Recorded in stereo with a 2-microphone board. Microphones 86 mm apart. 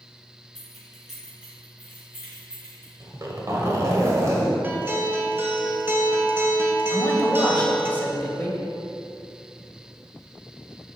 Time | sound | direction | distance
0.6 | keys jangling | 5° left (ahead or behind) | 3 m
3.0 | a zipper | 40° right (ahead or behind) | 1.5 m
4.6 | a guitar | 25° right (ahead or behind) | 1.0 m
6.9 | a man speaking | 20° left (ahead or behind) | 1.6 m